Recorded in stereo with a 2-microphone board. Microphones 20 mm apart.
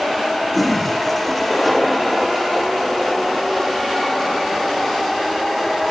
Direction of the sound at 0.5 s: 5° left (ahead or behind).